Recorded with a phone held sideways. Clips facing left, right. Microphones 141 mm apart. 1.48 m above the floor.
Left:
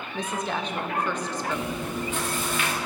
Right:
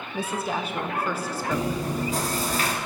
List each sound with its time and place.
0.1 s a woman speaking: 10° right (ahead or behind), 0.7 m
1.5 s chewing: 35° right (ahead or behind), 0.9 m